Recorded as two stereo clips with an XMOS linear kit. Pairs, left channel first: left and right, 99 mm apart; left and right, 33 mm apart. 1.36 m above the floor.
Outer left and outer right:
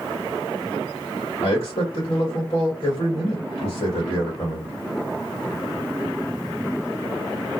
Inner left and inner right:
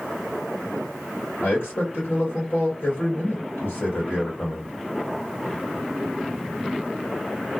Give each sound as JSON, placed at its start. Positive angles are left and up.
{"t": 1.4, "sound": "a man speaking", "side_deg": 85, "distance_m": 1.6}